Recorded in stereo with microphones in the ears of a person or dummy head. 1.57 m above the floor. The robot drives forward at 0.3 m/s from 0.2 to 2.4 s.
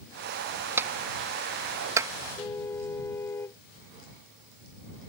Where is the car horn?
15° left (ahead or behind).